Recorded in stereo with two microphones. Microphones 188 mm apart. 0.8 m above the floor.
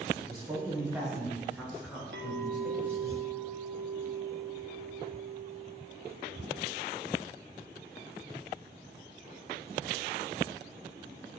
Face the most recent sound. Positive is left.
turn(degrees=-70)  # may be behind; listen again after turning